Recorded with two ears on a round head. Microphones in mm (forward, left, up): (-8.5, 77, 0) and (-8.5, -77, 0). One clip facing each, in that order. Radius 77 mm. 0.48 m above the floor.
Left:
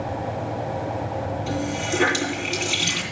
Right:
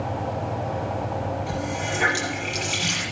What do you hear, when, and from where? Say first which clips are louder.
1.5 s a running tap: left 2 dB; 55° left (ahead or behind), 9 m